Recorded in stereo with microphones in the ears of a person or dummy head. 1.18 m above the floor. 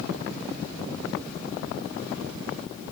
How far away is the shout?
I don't hear a shout.